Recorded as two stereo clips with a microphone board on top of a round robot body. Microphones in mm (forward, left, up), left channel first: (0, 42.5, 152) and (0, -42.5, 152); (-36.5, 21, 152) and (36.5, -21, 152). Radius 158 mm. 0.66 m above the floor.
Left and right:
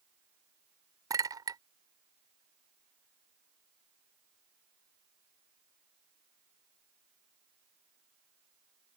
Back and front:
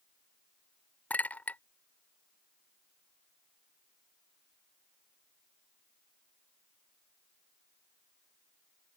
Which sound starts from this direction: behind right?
A clink, at 1.1 s.